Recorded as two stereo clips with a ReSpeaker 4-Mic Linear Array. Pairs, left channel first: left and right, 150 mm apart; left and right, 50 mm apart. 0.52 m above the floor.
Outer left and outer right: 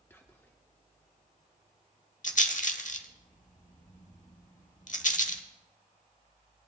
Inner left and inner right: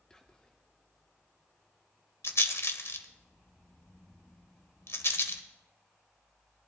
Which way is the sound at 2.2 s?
60° left (ahead or behind).